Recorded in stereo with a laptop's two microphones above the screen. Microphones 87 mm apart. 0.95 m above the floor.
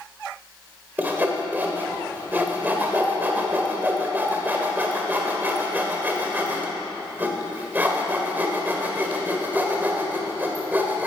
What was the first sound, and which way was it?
Sawing, 20° right (ahead or behind).